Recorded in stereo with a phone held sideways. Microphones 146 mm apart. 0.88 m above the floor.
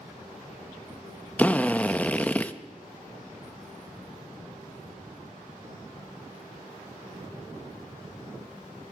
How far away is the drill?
About 0.8 m.